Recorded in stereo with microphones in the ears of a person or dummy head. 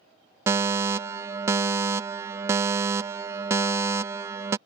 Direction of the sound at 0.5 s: 20° right (ahead or behind).